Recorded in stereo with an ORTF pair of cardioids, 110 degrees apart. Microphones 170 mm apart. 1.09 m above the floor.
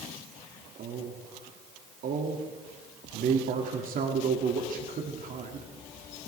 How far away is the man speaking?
About 2 m.